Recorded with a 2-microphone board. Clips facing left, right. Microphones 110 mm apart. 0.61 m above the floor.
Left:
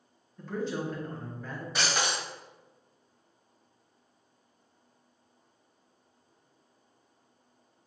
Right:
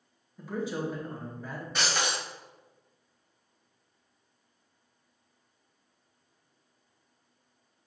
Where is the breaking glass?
Centre (ahead or behind), 1.7 m.